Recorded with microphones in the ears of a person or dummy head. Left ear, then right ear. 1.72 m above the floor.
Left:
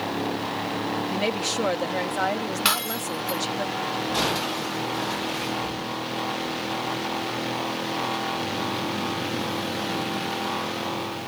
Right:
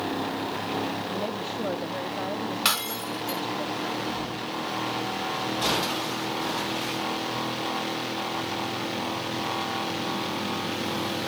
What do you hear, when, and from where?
1.1 s a woman speaking: 65° left (ahead or behind)
2.6 s breaking glass: centre (ahead or behind)